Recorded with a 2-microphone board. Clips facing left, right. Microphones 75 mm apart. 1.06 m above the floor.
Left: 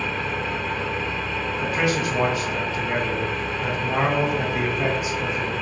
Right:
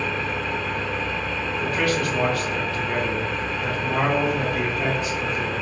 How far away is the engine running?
About 1.3 m.